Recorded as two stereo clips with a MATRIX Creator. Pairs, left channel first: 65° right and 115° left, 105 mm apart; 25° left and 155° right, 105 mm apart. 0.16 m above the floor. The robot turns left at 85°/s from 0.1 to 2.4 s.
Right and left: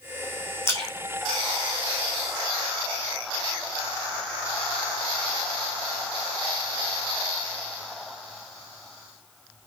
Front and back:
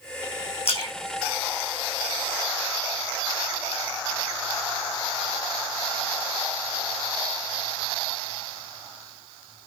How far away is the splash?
About 4 m.